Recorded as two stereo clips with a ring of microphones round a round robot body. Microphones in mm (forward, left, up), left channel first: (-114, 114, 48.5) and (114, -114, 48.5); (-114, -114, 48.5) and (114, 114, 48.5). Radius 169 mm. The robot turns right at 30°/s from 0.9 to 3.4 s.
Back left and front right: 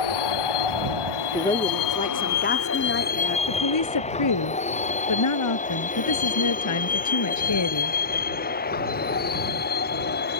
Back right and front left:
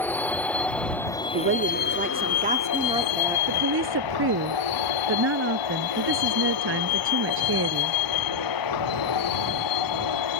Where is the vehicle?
140° left; by 10.4 s 165° right.